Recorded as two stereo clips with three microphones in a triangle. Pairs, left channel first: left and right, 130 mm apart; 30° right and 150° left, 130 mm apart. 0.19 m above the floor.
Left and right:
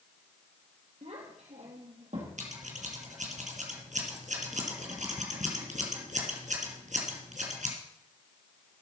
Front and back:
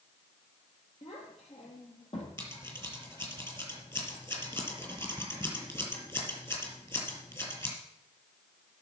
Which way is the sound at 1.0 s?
65° right.